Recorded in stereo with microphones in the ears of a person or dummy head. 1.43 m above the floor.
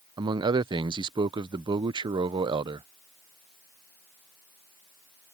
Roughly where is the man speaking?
Right.